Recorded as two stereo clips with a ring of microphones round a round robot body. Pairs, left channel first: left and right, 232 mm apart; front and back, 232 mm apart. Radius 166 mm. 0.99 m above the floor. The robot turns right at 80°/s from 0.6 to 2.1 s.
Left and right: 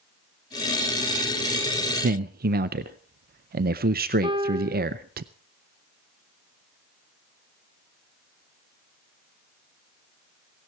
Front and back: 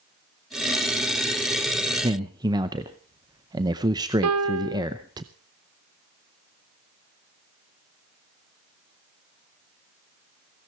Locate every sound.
2.0 s a man speaking: 120° right, 0.5 m; by 5.2 s 115° right, 0.5 m
4.2 s a piano: 165° right, 0.5 m